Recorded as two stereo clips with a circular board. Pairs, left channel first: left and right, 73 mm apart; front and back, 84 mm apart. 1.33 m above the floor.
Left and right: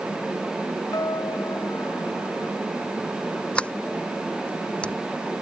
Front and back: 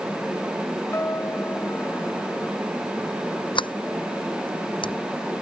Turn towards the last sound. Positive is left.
turn(degrees=15)